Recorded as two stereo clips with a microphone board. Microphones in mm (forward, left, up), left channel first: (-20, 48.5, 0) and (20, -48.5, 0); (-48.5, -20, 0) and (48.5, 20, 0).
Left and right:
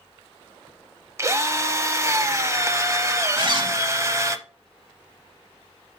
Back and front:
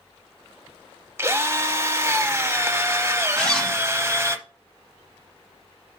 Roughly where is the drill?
Ahead right.